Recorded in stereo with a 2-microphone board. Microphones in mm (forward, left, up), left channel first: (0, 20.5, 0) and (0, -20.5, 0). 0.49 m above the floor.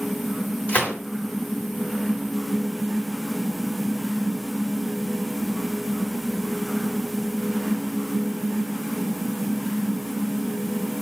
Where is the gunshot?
40° left (ahead or behind), 1.3 m.